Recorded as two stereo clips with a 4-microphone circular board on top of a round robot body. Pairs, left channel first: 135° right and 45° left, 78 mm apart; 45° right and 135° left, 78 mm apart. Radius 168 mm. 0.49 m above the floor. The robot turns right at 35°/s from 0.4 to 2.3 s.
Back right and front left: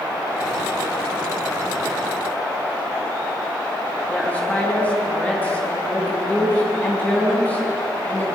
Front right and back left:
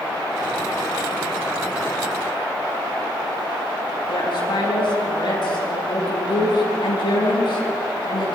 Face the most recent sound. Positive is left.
turn(degrees=-65)